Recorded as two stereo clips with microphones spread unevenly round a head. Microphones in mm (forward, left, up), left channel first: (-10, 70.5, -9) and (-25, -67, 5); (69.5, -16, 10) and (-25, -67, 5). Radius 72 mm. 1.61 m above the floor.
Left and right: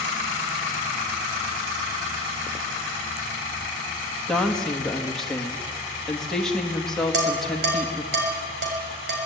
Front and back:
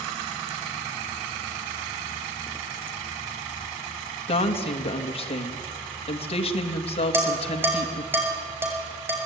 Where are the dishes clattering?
80° right, 6 m.